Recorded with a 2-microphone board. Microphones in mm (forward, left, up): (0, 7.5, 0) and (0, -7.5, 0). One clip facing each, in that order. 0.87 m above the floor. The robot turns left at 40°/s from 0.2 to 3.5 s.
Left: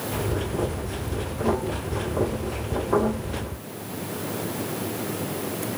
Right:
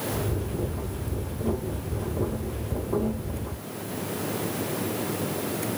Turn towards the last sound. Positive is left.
No sound to turn to.